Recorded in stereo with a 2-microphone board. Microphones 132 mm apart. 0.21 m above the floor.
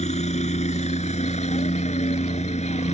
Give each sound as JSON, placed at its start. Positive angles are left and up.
{"t": 0.0, "sound": "a helicopter", "side_deg": 60}